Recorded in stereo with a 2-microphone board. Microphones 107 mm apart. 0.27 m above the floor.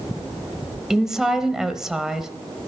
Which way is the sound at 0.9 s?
5° right (ahead or behind).